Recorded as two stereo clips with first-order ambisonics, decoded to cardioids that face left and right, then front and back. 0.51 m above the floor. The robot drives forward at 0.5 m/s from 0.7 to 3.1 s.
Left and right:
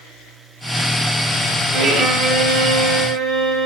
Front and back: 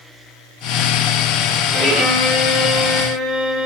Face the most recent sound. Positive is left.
turn(degrees=-135)